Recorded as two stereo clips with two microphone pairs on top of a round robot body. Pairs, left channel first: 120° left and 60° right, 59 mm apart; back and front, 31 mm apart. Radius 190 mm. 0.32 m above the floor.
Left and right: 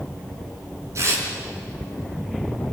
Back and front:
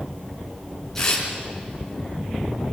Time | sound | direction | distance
0.9 | tearing paper | 105° right | 5 m